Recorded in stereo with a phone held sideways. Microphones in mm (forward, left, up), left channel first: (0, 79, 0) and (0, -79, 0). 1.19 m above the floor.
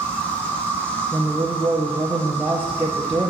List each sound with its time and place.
0.0 s an insect: 10° left (ahead or behind), 0.9 m
1.1 s a woman speaking: 10° right (ahead or behind), 0.5 m